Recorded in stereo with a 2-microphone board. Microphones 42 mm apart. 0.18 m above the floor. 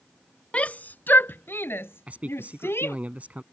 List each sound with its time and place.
0.5 s a shout: 30° left (ahead or behind); by 3.0 s 75° left (ahead or behind)
2.1 s a man speaking: 35° right (ahead or behind)